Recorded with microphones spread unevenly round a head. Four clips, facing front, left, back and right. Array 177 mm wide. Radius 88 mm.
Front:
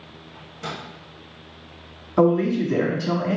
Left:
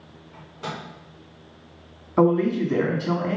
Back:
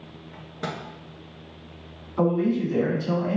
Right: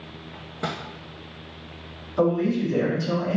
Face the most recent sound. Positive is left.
turn(degrees=40)